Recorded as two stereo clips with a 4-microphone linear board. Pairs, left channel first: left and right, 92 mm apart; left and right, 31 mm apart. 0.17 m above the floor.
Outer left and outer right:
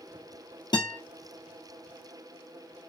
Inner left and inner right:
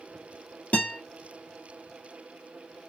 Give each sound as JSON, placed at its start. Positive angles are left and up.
{"t": 0.7, "sound": "a guitar", "side_deg": 55, "distance_m": 1.7}